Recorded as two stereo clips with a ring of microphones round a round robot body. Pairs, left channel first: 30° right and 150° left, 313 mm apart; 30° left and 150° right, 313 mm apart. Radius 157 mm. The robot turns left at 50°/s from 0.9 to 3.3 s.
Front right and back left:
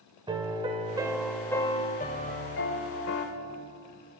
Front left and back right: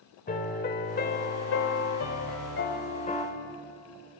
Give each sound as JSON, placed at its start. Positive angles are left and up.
{"t": 0.3, "sound": "a piano", "azimuth_deg": 80, "distance_m": 1.6}